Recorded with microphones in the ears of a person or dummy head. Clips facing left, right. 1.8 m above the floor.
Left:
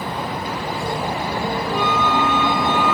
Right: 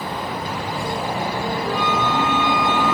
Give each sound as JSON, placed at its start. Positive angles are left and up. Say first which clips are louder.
{"t": 1.6, "sound": "a flute", "louder": "left 1 dB", "side_deg": -45, "distance_m": 4.5}